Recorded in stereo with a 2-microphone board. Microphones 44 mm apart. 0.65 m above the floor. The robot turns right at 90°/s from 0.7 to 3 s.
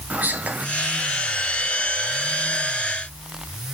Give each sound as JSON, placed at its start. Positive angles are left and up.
{"t": 0.1, "sound": "whispering", "side_deg": -40, "distance_m": 0.6}